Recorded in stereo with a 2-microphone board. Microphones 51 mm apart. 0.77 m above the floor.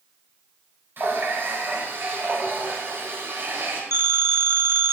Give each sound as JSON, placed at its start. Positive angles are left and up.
{"t": 1.0, "sound": "a running tap", "side_deg": -50, "distance_m": 2.5}
{"t": 3.9, "sound": "a phone ringing", "side_deg": -70, "distance_m": 1.3}